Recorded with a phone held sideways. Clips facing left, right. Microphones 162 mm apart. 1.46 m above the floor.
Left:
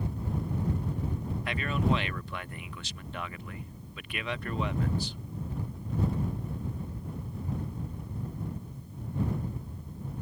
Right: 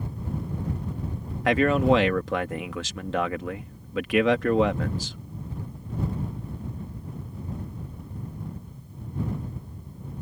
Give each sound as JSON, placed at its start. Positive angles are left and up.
{"t": 1.4, "sound": "a man speaking", "side_deg": -85}